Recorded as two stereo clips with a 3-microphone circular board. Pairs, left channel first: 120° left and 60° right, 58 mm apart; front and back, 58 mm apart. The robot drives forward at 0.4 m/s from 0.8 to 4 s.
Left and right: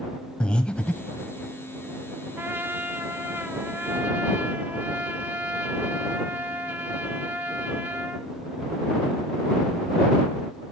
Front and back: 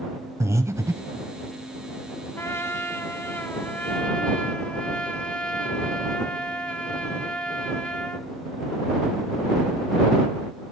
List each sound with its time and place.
0.4 s breathing: 170° right, 0.5 m; by 1.3 s 175° right, 0.7 m
2.4 s a trumpet: 20° right, 1.1 m; by 8.3 s 55° right, 0.7 m